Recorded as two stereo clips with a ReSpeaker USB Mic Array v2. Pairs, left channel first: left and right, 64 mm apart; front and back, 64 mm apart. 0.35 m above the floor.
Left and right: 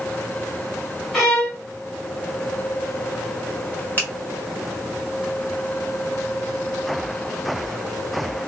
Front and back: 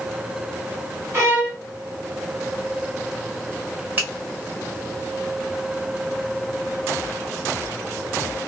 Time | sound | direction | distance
1.1 | a violin | 175° left | 1.5 m
4.0 | a finger snap | 135° left | 1.7 m